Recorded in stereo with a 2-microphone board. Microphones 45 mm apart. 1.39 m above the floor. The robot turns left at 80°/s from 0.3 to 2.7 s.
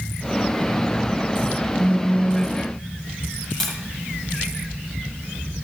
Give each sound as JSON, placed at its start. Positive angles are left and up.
{"t": 1.8, "sound": "a phone buzzing", "azimuth_deg": 135, "distance_m": 8.0}
{"t": 3.6, "sound": "tapping", "side_deg": 10, "distance_m": 3.5}